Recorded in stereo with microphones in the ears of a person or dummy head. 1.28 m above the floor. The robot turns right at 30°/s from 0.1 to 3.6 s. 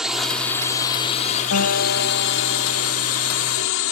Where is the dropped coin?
I don't hear a dropped coin.